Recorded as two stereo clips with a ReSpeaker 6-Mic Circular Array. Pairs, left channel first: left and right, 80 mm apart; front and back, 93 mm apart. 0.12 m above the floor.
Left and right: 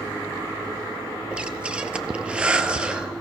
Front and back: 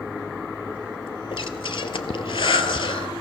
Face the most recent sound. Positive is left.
turn(degrees=-15)